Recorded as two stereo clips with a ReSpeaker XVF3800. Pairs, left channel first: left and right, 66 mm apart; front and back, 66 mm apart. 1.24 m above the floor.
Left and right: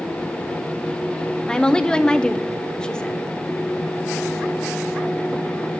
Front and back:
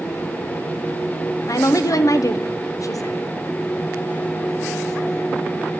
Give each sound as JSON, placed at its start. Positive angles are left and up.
{"t": 1.5, "sound": "a woman speaking", "azimuth_deg": 10, "distance_m": 0.7}